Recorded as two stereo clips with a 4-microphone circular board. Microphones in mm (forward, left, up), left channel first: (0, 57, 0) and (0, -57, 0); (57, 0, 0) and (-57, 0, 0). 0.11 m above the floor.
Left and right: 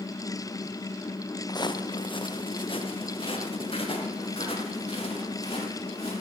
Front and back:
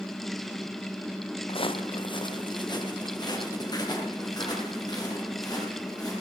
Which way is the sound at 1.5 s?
35° left.